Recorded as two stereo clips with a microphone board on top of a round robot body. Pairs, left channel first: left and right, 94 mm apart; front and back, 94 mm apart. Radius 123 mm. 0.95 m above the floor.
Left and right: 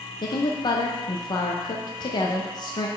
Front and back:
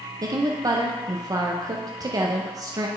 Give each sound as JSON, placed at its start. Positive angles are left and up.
{"t": 0.2, "sound": "a woman speaking", "azimuth_deg": 130, "distance_m": 0.7}